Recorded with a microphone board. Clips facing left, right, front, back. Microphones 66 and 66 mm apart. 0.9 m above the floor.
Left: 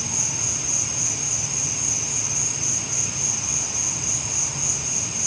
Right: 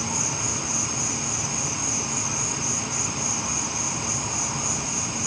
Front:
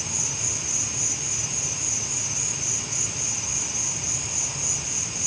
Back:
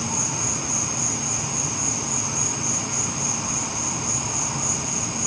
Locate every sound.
0.0 s an insect: 140° right, 2.5 m